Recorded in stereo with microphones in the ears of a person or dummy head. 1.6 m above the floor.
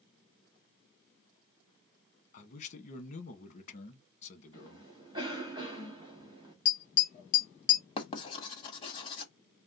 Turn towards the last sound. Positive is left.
turn(degrees=30)  # may be behind; listen again after turning